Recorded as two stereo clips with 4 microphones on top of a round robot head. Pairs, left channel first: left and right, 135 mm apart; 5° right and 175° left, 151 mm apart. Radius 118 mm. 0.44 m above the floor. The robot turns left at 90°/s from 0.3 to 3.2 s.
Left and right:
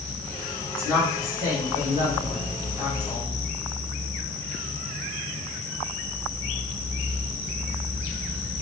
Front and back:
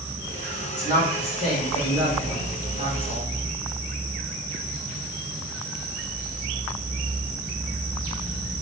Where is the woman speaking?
15° left, 1.6 m; by 3.3 s 155° left, 1.6 m.